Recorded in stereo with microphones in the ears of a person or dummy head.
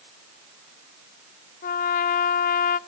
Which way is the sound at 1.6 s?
45° left (ahead or behind).